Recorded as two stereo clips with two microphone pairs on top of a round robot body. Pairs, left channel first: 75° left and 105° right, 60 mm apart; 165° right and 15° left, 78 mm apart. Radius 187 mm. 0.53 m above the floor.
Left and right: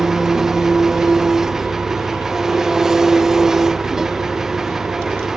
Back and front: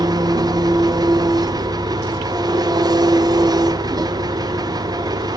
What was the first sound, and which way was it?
An engine running, 25° right.